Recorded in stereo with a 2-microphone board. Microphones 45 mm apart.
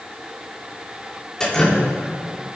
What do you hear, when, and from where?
1.4 s dripping: 15° left (ahead or behind), 2.5 m